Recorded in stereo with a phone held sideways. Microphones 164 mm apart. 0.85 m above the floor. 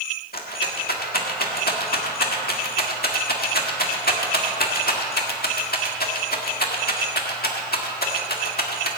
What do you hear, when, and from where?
0.3 s a rattle: 70° left (ahead or behind), 1.7 m